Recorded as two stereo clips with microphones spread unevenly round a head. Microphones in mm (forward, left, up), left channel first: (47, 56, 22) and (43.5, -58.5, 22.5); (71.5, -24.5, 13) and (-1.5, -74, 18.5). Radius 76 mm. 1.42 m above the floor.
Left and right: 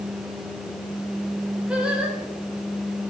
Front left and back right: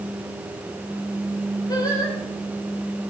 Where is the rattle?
I don't hear a rattle.